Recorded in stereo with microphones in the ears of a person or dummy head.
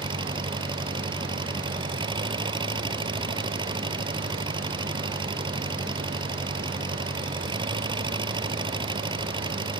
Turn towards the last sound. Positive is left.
turn(degrees=-25)  # may be behind; listen again after turning